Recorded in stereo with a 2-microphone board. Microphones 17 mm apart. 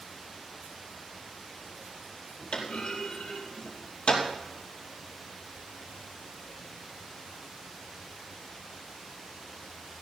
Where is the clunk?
80° left, 4 m.